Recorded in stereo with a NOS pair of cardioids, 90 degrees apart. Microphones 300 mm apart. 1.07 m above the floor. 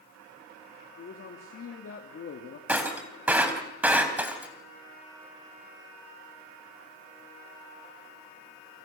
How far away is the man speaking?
About 2.5 m.